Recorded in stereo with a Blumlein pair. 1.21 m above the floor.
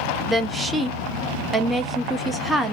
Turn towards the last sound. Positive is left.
turn(degrees=-5)